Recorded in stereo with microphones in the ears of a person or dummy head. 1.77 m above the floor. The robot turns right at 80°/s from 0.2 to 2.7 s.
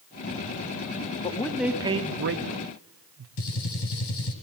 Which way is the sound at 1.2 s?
30° left (ahead or behind).